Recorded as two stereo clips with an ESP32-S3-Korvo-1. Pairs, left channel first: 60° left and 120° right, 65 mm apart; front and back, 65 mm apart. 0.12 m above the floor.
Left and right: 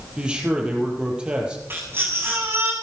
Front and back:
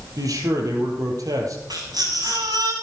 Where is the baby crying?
175° right, 9 m.